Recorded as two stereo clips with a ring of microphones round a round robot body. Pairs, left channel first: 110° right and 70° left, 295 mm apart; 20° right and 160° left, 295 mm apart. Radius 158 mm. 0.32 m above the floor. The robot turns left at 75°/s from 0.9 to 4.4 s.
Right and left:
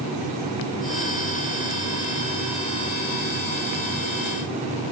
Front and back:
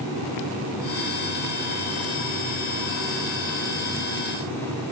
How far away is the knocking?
No knocking in this recording.